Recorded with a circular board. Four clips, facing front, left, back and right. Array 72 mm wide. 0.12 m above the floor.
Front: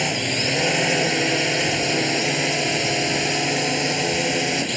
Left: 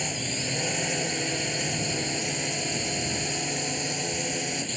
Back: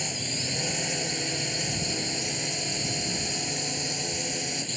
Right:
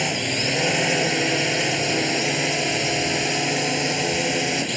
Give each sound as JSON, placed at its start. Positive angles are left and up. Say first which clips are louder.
{"t": 0.0, "sound": "a drone", "louder": "right 8 dB, front 11 dB", "azimuth_deg": -35}